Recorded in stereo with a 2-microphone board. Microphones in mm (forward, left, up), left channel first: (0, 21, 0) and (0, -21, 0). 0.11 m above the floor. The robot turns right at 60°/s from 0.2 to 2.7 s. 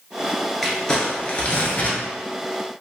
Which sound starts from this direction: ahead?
Crumpling, at 0.6 s.